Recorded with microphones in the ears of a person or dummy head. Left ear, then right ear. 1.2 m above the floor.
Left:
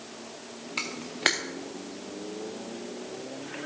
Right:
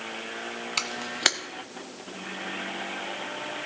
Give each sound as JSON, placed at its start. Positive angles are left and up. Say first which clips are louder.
{"t": 0.8, "sound": "a camera shutter", "louder": "right 2 dB", "side_deg": -20, "distance_m": 0.6}